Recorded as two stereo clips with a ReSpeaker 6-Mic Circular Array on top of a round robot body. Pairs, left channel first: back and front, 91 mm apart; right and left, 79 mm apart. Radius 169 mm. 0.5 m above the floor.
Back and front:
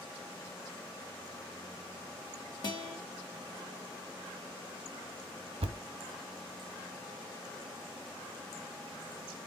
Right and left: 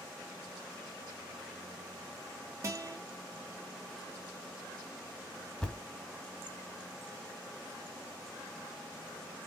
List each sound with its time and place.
2.6 s a guitar: 140° left, 0.9 m
5.6 s a thud: 5° right, 0.5 m